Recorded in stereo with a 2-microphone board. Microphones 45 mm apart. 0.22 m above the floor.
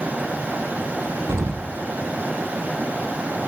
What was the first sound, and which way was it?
An explosion, 80° right.